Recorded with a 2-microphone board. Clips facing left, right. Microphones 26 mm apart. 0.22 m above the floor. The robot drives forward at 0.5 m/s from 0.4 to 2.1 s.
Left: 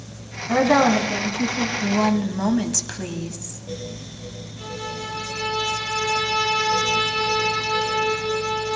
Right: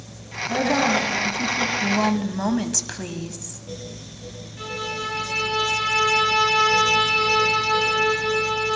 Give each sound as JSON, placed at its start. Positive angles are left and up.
{"t": 0.5, "sound": "a woman speaking", "side_deg": 40, "distance_m": 1.8}
{"t": 1.8, "sound": "a woman speaking", "side_deg": -5, "distance_m": 1.0}
{"t": 4.6, "sound": "a violin", "side_deg": -45, "distance_m": 8.5}